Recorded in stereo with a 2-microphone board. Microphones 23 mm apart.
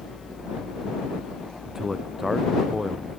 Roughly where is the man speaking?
Centre.